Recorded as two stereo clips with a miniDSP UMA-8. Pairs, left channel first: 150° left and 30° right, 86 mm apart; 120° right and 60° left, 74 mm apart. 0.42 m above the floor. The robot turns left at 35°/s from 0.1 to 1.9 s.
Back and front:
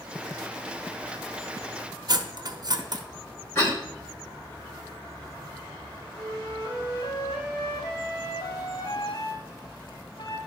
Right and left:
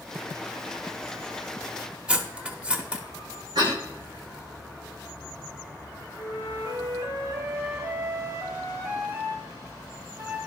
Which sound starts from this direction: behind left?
A flute, at 6.2 s.